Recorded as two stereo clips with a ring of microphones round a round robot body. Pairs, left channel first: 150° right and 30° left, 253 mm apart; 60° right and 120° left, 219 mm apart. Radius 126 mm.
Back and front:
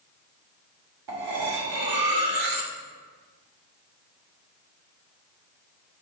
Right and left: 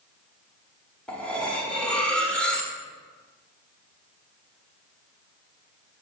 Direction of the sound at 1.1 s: 25° left.